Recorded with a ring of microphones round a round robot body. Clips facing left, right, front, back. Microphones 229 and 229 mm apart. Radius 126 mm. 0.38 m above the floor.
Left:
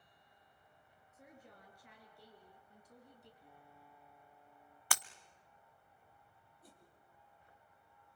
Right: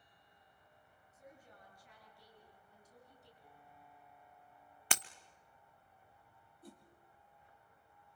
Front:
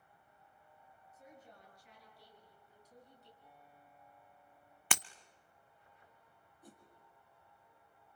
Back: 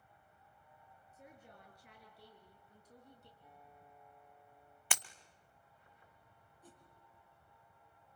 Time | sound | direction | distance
1.1 | a woman speaking | 135° left | 7 m
3.4 | a piano | 110° left | 10 m
4.9 | breaking glass | 20° right | 0.6 m
6.6 | a whoosh | 80° right | 4 m